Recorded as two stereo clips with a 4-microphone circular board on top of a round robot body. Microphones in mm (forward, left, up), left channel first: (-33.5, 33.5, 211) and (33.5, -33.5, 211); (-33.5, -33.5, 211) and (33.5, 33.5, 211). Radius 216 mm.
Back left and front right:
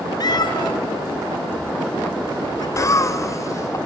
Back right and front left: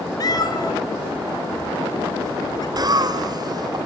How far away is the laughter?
About 2.5 m.